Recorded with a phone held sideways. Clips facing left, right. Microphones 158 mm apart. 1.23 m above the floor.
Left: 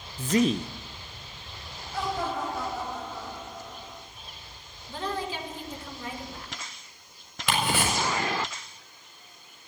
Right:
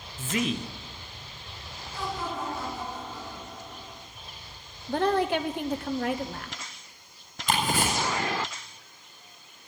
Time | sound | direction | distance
0.2 | a man speaking | 40° left (ahead or behind) | 0.6 m
1.9 | laughter | 65° left (ahead or behind) | 6.5 m
4.9 | a woman speaking | 65° right (ahead or behind) | 1.2 m
7.5 | ticking | 85° left | 6.5 m